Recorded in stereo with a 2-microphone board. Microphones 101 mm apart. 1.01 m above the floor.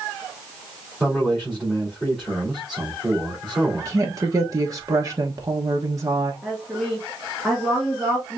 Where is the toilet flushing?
No toilet flushing in this recording.